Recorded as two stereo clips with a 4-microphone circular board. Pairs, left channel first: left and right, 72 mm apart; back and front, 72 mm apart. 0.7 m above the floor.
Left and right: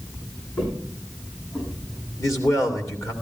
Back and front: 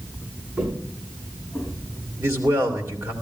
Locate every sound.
0.6 s footsteps: 75° left, 7 m; by 1.7 s 85° left, 6.5 m
2.2 s a man speaking: 55° left, 2.5 m